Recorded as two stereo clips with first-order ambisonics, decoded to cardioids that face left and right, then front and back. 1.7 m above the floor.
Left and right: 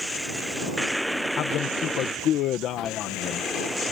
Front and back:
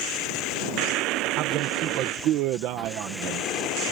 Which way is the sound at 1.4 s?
140° left.